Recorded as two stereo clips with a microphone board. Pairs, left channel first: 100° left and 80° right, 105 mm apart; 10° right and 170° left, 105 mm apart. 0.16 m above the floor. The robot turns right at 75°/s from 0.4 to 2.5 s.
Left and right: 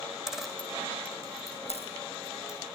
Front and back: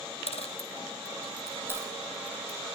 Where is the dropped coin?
5° left, 2 m; by 2.6 s 165° left, 2 m.